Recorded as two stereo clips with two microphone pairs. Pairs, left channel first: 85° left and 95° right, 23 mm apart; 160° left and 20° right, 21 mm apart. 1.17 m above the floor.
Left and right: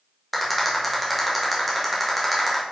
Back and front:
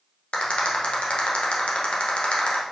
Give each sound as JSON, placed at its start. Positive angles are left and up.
{"t": 0.3, "sound": "a rattle", "azimuth_deg": 175, "distance_m": 1.5}